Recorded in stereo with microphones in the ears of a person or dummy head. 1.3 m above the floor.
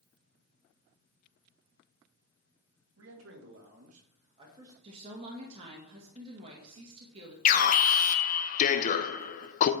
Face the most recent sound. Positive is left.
turn(degrees=45)  # may be behind; listen again after turning